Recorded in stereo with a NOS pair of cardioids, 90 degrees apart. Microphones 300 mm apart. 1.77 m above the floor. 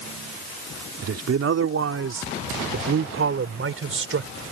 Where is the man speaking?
55° right; by 4.3 s 45° right.